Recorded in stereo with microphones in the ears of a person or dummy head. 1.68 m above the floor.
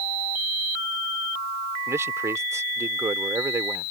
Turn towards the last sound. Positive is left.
turn(degrees=-10)  # may be behind; listen again after turning